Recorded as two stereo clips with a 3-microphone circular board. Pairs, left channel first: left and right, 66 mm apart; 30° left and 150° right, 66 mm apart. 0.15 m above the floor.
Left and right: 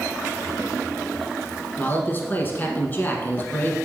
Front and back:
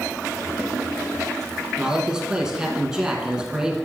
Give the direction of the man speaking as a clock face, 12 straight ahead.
8 o'clock.